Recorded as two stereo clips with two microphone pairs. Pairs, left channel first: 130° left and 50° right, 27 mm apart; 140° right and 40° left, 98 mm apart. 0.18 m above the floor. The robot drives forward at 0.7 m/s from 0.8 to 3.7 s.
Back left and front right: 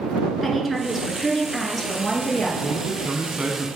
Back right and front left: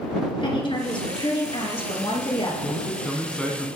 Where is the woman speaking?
140° right, 3 m; by 2.5 s 150° right, 4 m.